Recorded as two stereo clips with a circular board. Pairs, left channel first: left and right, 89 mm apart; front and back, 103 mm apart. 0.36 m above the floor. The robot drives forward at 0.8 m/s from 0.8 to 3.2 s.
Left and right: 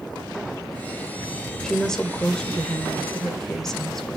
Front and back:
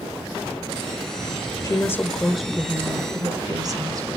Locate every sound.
1.6 s a woman speaking: 10° left, 1.0 m; by 4.2 s 170° left, 1.1 m